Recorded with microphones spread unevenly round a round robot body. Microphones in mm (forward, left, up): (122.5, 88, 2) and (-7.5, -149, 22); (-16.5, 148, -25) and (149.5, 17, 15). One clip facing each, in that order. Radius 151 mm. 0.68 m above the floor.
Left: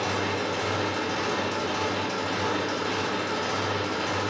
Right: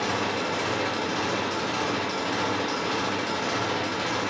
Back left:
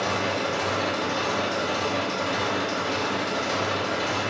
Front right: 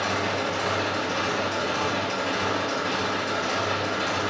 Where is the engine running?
125° right, 1.4 m.